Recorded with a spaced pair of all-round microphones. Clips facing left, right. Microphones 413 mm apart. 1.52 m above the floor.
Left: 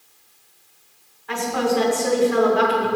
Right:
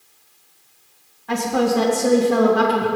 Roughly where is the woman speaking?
Right.